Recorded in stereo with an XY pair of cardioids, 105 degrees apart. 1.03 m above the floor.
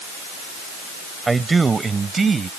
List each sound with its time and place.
1.3 s a man speaking: 25° right; by 2.5 s 35° right